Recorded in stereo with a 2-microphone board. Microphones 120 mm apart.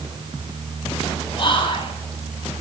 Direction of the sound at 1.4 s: 45° left (ahead or behind).